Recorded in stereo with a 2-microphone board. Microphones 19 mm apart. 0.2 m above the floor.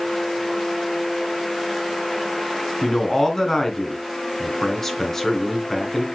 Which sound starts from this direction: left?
A man speaking, at 2.8 s.